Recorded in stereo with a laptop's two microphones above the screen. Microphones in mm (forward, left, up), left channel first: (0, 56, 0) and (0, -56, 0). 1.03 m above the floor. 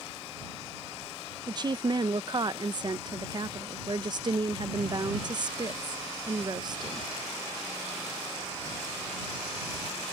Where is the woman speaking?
40° right (ahead or behind).